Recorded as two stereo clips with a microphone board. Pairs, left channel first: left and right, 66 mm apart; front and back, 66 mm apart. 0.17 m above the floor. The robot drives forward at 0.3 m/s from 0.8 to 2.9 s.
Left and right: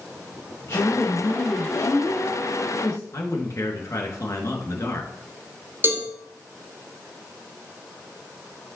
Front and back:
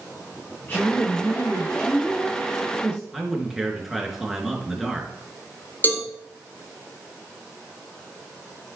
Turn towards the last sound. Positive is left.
turn(degrees=-45)